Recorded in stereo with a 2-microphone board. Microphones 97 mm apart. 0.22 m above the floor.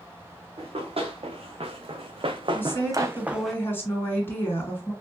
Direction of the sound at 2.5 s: 20° left (ahead or behind).